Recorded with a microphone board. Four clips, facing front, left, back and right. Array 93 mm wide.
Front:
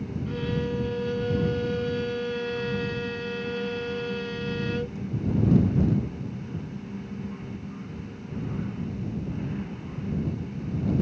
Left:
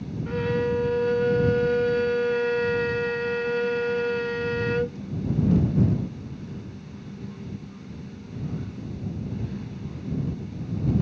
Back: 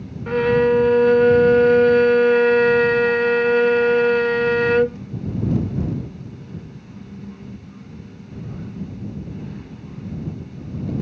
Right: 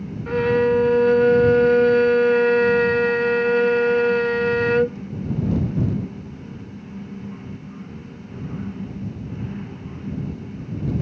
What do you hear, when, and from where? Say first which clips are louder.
0.3 s a violin: right 7 dB, back 15 dB; 150° right